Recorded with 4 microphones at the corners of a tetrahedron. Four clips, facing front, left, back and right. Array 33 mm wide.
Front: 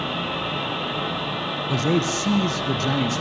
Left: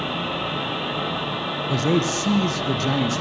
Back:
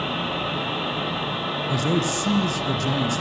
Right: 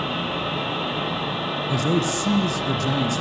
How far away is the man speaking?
About 1.9 m.